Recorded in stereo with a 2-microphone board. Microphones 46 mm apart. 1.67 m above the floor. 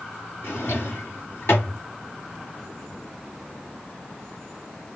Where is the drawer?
75° left (ahead or behind), 3 m.